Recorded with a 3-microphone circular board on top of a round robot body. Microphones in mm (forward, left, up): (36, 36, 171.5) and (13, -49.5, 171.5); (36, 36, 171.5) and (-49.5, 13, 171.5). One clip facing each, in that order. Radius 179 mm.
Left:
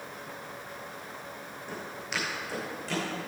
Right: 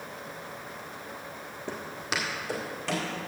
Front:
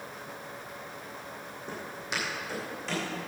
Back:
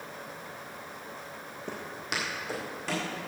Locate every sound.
1.7 s footsteps: 140° right, 1.2 m; by 3.1 s 115° right, 3 m